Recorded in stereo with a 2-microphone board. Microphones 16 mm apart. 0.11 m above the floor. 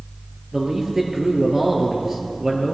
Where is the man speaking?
30° right (ahead or behind), 2.5 m.